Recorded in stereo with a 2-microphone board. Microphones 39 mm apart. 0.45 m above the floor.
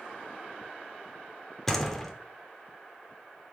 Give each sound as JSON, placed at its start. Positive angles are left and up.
{"t": 1.7, "sound": "a door slam", "side_deg": 10, "distance_m": 1.0}